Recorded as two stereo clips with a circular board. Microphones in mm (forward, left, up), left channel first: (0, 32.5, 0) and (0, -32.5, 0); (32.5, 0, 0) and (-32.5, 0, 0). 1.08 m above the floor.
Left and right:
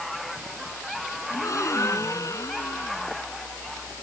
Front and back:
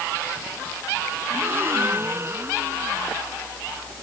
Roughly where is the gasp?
Behind left.